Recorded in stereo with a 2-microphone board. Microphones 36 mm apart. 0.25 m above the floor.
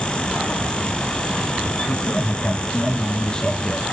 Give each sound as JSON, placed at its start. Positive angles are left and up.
{"t": 1.9, "sound": "a man speaking", "side_deg": 50, "distance_m": 2.5}